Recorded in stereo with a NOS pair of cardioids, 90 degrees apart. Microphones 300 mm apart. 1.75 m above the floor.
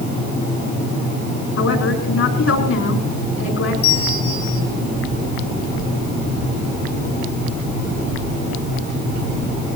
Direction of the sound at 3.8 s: 55° left.